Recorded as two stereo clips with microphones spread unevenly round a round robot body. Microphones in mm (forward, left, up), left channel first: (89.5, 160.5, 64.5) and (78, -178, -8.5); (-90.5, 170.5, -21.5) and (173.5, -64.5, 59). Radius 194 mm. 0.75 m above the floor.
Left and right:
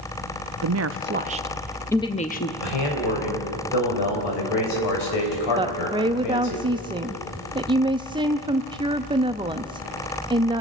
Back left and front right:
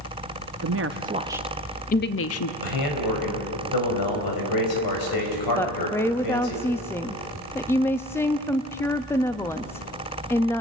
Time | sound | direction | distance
0.6 | a woman speaking | 95° right | 0.7 m
2.6 | a man speaking | 115° left | 5 m
5.6 | a woman speaking | 155° right | 0.6 m